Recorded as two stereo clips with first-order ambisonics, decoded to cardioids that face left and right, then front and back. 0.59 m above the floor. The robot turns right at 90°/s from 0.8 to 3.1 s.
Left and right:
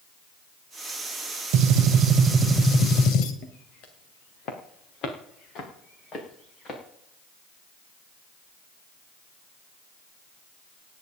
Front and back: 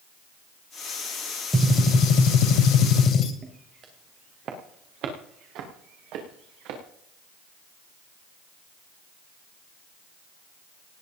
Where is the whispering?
No whispering in this recording.